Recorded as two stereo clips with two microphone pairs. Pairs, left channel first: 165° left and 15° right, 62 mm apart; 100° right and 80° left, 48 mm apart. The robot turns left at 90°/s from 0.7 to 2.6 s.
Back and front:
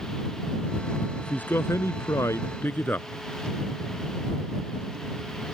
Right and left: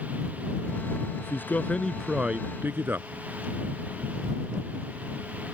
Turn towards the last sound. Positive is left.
turn(degrees=115)